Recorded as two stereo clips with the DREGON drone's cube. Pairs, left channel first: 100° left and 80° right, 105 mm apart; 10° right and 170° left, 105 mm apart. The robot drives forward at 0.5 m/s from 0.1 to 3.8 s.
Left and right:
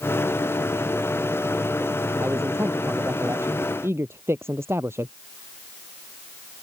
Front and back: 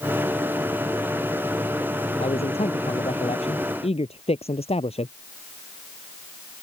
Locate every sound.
2.2 s a man speaking: 15° right